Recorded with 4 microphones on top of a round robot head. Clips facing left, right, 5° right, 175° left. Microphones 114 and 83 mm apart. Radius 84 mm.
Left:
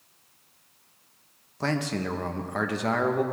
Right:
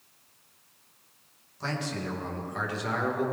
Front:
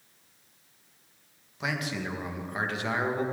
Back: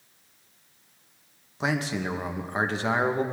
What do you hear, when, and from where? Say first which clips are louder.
1.6 s a man speaking: left 5 dB, back 5 dB; 120° left, 1.7 m